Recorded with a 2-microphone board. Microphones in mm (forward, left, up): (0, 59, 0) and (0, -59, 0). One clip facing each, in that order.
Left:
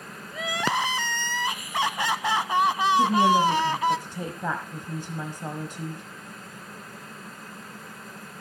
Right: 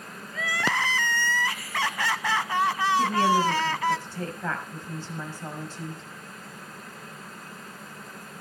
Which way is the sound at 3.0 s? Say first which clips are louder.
Left 3 dB; 15° left (ahead or behind).